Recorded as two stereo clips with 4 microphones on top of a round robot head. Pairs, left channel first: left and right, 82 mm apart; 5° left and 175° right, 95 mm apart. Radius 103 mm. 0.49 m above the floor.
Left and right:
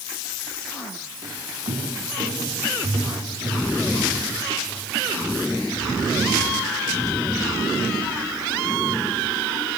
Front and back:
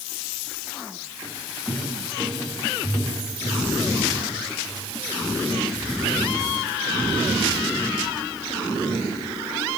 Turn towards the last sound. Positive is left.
turn(degrees=-45)